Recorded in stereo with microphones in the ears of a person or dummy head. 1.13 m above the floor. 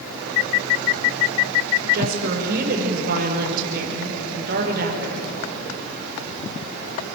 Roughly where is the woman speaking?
Right.